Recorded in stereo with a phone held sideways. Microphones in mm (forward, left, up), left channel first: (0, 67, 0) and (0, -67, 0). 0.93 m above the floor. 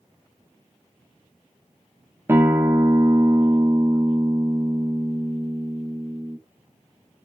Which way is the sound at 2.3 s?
20° right (ahead or behind).